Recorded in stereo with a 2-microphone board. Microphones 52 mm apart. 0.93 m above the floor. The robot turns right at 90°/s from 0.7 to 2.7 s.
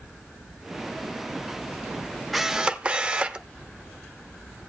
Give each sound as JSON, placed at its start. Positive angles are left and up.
{"t": 2.3, "sound": "a camera shutter", "azimuth_deg": 180, "distance_m": 0.6}